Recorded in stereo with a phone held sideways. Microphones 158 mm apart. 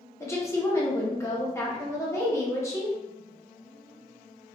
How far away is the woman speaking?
About 1.0 m.